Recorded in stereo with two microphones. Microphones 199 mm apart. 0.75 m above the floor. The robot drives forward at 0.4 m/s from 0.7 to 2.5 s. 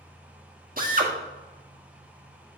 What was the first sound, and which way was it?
A drill, 45° right (ahead or behind).